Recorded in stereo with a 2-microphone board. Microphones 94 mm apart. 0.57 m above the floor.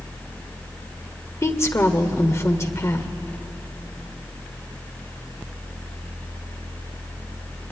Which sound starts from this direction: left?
A woman speaking, at 1.4 s.